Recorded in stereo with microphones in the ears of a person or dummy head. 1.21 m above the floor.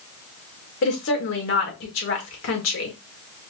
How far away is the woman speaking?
About 1.7 m.